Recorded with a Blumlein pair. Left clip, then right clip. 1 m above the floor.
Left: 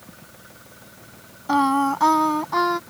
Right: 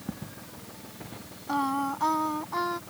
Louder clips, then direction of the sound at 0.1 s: Right 3 dB; 60° right.